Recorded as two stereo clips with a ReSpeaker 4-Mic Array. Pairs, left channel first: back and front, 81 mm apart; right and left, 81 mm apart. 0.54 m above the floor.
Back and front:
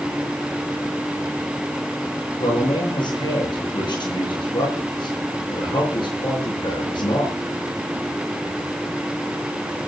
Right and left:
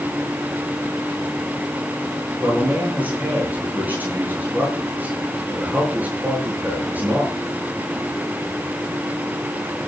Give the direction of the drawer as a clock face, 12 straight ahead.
No drawer in this recording.